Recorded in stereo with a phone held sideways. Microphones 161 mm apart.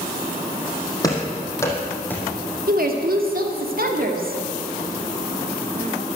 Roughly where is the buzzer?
No buzzer in this recording.